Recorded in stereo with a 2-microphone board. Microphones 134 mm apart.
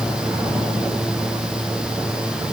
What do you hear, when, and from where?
Only background noise.